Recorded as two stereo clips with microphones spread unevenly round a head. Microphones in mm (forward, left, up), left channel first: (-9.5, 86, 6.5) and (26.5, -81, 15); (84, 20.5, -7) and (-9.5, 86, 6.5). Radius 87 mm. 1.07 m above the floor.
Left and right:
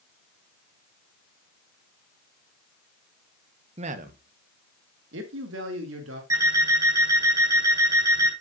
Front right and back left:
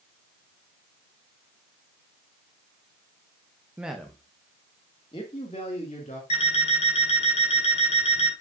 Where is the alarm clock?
5° right, 4 m.